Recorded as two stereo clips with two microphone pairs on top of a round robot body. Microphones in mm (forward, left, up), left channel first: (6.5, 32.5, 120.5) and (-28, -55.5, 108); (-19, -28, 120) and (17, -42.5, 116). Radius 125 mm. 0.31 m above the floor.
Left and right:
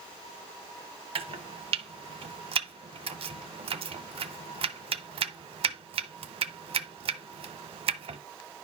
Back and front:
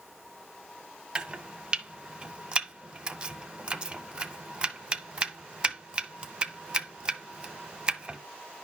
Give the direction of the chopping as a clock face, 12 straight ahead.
3 o'clock.